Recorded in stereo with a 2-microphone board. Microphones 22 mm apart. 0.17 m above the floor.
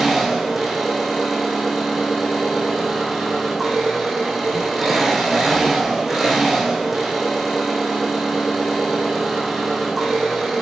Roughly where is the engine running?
Centre.